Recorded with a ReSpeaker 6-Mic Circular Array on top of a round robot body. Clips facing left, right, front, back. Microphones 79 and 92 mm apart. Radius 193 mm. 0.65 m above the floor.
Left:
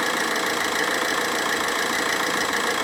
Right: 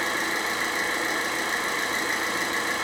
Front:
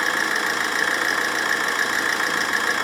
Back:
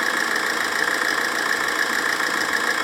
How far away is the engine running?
About 0.8 m.